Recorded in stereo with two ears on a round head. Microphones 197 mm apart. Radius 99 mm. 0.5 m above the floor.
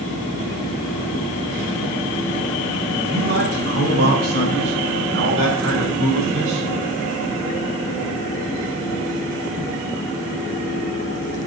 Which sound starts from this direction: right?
A man speaking, at 3.1 s.